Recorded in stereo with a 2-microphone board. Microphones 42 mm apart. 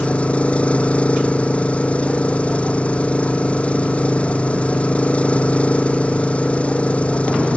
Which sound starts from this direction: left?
An engine running, at 0.0 s.